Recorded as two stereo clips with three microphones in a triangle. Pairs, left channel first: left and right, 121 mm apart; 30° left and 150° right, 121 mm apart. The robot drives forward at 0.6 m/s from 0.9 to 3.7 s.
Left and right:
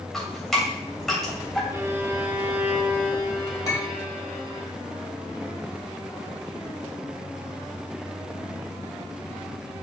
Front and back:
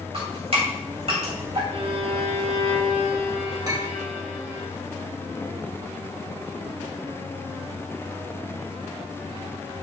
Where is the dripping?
Straight behind, 2.5 m.